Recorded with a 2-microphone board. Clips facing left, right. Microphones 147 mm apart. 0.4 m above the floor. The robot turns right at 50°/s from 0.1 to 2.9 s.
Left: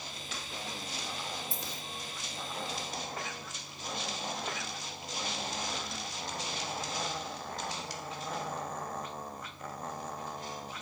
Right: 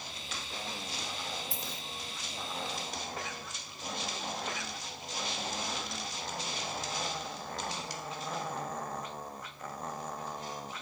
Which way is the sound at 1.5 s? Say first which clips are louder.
Even; 65° right (ahead or behind).